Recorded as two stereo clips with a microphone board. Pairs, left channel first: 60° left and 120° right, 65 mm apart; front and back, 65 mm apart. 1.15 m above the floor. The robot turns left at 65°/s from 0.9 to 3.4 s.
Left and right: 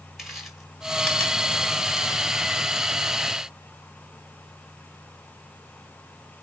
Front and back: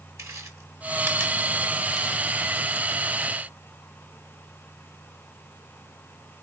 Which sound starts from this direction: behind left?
Chewing, at 0.2 s.